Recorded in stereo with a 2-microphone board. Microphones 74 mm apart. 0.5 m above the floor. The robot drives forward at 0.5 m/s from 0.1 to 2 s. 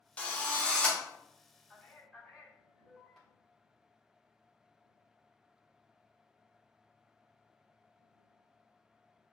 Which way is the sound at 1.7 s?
5° left (ahead or behind).